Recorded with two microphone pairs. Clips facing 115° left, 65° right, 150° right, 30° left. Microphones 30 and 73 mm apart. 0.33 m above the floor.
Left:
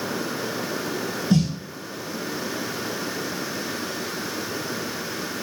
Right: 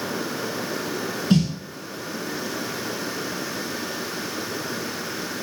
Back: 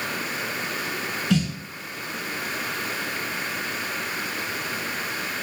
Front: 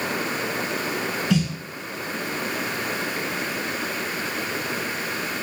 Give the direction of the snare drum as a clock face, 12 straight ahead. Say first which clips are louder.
Right 1 dB, even; 2 o'clock.